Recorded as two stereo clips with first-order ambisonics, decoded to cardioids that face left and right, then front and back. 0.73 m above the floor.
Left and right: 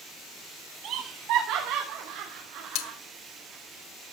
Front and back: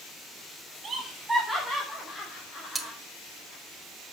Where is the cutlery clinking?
100° left, 1.0 m.